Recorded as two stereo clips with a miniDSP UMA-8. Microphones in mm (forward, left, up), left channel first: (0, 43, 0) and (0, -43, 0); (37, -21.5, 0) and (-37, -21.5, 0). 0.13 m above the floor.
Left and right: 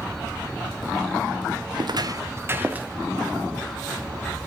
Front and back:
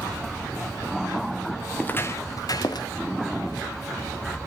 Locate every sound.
1.8 s footsteps: 75° right, 1.3 m; by 2.9 s 20° right, 2 m